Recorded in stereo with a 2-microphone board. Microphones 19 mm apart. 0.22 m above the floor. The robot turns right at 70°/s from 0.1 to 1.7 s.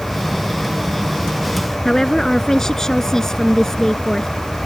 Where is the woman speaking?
25° left (ahead or behind).